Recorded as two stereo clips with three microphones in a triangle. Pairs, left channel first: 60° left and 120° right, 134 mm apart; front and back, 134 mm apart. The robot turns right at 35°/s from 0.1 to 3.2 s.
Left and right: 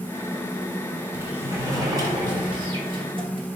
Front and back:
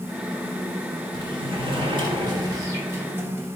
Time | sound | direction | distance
1.1 | a sliding door | 170° left | 1.0 m